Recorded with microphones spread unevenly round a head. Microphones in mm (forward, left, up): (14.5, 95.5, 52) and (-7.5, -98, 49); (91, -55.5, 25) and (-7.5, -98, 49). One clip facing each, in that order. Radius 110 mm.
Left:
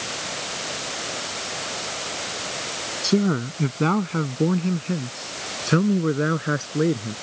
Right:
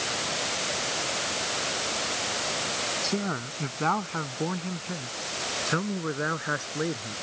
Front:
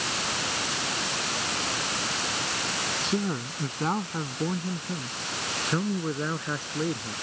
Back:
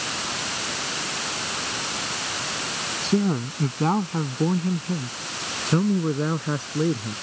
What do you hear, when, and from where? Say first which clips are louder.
3.0 s a man speaking: left 12 dB, back 8 dB; 135° left